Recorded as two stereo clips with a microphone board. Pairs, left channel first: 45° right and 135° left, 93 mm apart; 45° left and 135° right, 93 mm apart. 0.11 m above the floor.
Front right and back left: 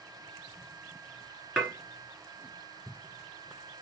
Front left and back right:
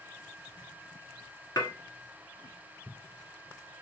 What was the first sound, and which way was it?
Dishes clattering, 35° left.